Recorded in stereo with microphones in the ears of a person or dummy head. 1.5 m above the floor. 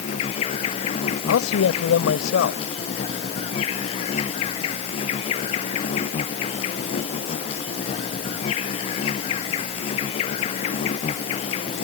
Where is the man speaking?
80° left.